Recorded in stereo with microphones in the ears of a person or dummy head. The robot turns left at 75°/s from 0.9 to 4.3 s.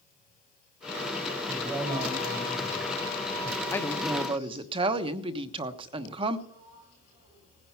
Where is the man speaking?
10° left, 8 m; by 3.6 s 150° right, 8 m.